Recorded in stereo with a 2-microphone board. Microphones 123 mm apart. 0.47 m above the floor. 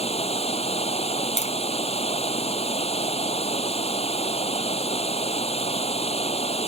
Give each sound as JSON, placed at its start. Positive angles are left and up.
{"t": 0.0, "sound": "running water", "side_deg": 60}
{"t": 1.4, "sound": "tapping", "side_deg": 65}